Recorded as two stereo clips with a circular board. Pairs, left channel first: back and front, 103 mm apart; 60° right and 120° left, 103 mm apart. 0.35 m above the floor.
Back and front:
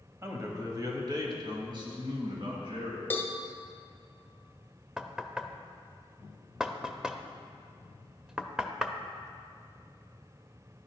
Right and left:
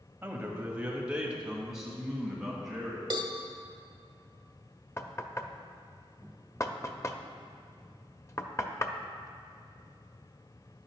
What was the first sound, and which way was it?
A man speaking, 55° left.